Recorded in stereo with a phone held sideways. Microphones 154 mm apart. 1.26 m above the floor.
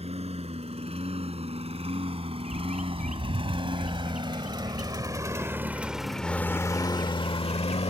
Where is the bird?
55° right (ahead or behind).